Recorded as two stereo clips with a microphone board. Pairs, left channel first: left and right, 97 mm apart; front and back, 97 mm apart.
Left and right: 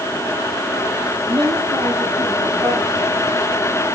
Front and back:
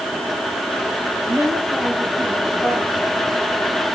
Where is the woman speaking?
125° right, 7.5 m.